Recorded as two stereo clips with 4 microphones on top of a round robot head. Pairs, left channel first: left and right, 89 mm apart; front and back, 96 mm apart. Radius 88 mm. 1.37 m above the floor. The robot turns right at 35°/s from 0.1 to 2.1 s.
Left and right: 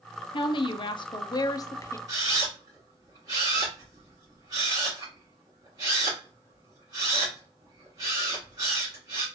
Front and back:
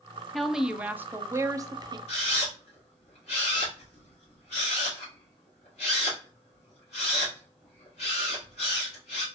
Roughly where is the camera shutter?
Ahead right.